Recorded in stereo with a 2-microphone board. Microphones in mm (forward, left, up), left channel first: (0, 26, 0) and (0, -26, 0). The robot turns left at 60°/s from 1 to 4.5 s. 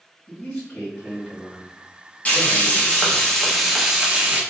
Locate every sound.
0.3 s a man speaking: 25° left, 1.5 m; by 3.2 s 110° right, 1.5 m
2.2 s frying: 25° left (ahead or behind), 0.8 m; by 4.4 s 20° right (ahead or behind), 0.8 m